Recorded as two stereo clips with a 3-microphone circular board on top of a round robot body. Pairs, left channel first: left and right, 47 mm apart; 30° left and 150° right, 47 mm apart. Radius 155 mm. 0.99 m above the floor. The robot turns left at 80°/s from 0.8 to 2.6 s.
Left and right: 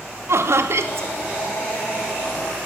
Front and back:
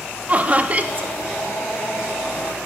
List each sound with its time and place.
0.3 s laughter: 95° right, 0.9 m; by 1.1 s 115° right, 0.9 m